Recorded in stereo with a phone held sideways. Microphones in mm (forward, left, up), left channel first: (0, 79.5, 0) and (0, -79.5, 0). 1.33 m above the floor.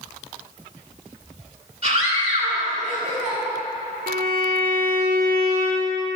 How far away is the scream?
About 3.5 m.